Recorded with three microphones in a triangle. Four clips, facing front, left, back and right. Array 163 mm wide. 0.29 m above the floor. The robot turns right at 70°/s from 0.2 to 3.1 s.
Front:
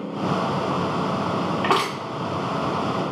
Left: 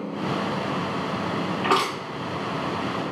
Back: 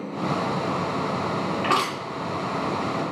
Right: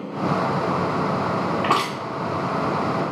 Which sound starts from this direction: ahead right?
Crushing, at 1.6 s.